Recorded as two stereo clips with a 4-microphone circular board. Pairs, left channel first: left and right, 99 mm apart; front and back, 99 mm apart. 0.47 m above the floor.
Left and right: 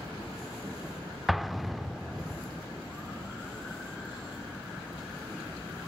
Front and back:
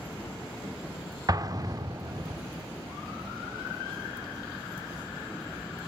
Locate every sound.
1.3 s an explosion: straight behind, 0.7 m